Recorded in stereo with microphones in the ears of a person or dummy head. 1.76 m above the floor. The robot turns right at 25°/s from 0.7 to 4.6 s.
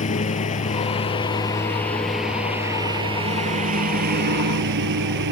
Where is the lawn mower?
145° left; by 5.3 s 115° right.